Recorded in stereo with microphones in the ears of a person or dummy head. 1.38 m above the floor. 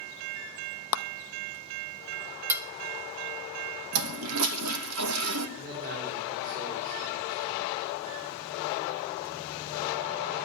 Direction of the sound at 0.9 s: 75° left (ahead or behind).